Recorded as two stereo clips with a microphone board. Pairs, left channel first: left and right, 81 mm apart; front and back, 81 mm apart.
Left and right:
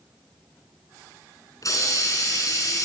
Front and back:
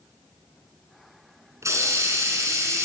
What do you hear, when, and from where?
1.6 s a hiss: 130° left, 4 m